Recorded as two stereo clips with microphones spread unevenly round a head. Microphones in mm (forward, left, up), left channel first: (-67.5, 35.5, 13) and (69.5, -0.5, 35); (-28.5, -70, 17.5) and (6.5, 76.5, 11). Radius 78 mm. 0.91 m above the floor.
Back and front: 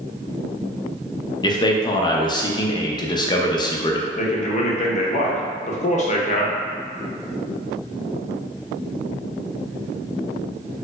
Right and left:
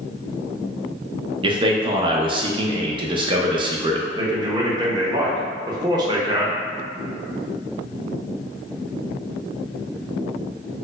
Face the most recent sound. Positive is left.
turn(degrees=140)